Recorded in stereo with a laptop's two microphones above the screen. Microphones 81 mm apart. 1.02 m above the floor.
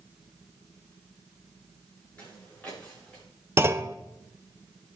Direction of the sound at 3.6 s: 30° right (ahead or behind).